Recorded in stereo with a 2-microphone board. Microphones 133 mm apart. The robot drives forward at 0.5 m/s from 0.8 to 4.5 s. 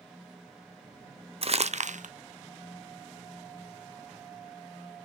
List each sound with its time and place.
1.4 s crumpling: 50° right (ahead or behind), 0.6 m; by 2.1 s 70° right (ahead or behind), 0.5 m